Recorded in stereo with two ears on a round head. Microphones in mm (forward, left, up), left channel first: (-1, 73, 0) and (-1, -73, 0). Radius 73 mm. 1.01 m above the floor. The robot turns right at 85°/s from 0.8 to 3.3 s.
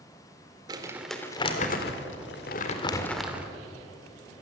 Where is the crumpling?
25° right (ahead or behind), 2 m; by 3.5 s 10° right (ahead or behind), 2 m.